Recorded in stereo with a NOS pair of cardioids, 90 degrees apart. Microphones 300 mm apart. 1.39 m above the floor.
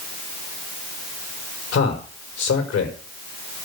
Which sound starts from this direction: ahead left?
A man speaking, at 1.7 s.